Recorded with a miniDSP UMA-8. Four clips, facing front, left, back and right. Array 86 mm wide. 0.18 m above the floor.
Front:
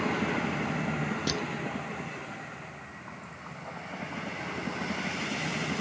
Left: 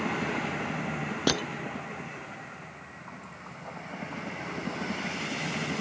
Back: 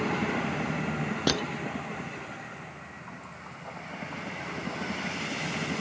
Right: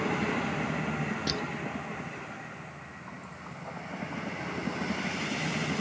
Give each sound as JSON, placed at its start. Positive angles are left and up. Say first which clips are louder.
{"t": 1.3, "sound": "crushing", "louder": "left 6 dB, back 8 dB", "azimuth_deg": 125}